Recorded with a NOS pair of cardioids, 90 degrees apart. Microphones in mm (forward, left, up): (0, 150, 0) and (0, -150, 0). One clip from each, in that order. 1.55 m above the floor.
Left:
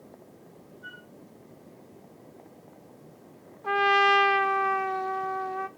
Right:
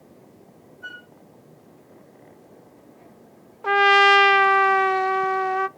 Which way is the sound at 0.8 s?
55° right.